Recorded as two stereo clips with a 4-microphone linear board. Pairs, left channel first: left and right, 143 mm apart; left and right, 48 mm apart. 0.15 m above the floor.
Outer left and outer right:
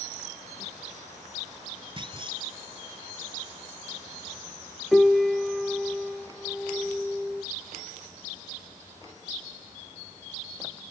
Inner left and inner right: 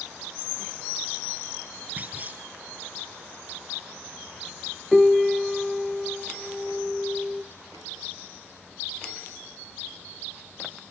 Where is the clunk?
35° right (ahead or behind), 1.5 m.